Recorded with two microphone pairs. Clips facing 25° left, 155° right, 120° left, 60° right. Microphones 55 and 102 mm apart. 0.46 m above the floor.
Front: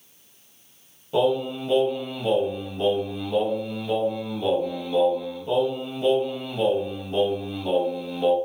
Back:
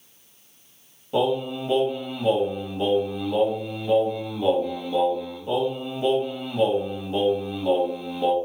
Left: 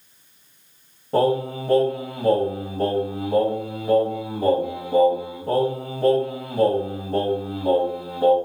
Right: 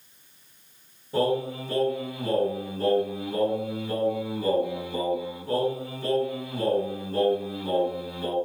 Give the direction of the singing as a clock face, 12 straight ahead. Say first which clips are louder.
Front 1 dB, left 5 dB; 8 o'clock.